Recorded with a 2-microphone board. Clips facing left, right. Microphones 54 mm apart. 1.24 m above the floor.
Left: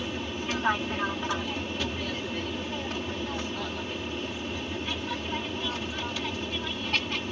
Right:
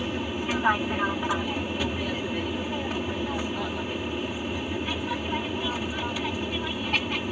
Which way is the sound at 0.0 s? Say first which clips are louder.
Right 3 dB; 10° right (ahead or behind).